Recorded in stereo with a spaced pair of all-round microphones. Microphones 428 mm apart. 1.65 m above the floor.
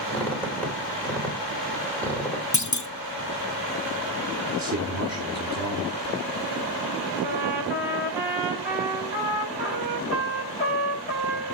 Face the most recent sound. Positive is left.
turn(degrees=-65)  # may be behind; listen again after turning